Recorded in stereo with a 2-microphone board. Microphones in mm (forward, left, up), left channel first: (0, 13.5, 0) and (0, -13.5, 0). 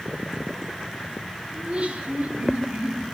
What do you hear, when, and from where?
1.5 s laughter: 80° right, 3.5 m; by 3.0 s 65° right (ahead or behind), 4 m